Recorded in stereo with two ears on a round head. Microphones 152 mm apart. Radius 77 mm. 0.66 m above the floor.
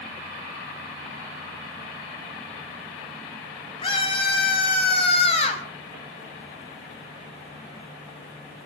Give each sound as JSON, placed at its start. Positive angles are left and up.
{"t": 3.8, "sound": "a scream", "side_deg": 30, "distance_m": 6.0}